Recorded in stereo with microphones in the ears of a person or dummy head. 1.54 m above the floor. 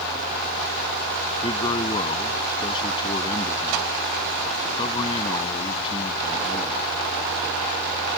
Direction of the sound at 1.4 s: 25° left (ahead or behind).